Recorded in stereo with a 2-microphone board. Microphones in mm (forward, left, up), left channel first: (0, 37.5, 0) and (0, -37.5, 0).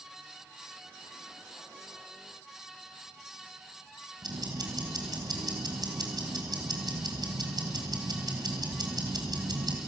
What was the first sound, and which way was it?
Ticking, 65° right (ahead or behind).